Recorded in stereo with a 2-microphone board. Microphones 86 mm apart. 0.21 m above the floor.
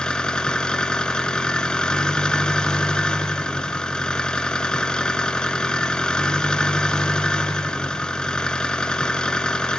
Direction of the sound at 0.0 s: 10° left (ahead or behind).